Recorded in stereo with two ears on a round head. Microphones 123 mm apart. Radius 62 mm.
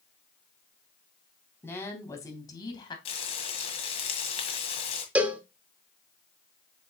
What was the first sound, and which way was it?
A woman speaking, 15° left (ahead or behind).